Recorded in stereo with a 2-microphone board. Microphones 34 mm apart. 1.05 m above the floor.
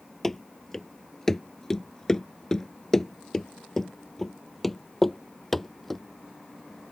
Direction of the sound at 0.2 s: 10° left (ahead or behind).